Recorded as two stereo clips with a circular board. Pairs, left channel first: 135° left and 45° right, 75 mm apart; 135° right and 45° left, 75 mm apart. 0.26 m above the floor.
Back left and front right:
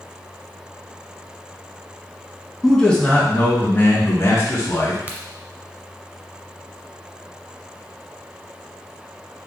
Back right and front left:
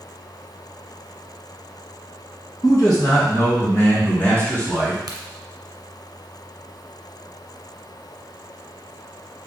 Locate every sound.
2.6 s a man speaking: 145° right, 2.5 m; by 5.0 s 145° left, 2 m
5.1 s a crack: 15° left, 1.1 m